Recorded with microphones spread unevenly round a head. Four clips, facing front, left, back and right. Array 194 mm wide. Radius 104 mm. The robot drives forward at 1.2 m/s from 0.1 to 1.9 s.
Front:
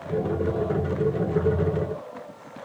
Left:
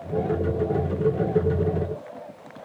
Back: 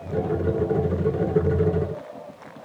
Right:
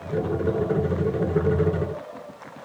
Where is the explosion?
I don't hear an explosion.